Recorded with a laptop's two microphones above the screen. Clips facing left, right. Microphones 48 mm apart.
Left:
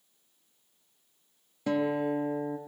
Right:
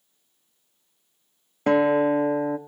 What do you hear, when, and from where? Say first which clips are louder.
1.7 s a guitar: right 9 dB; 55° right (ahead or behind), 0.8 m